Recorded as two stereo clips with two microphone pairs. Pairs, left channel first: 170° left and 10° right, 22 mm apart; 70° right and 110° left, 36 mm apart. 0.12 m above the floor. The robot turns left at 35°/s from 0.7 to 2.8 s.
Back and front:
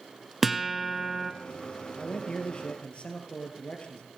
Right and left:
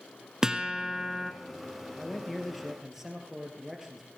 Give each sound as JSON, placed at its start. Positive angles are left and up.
{"t": 0.4, "sound": "a guitar", "azimuth_deg": 75, "distance_m": 1.0}
{"t": 2.0, "sound": "a man speaking", "azimuth_deg": -140, "distance_m": 2.5}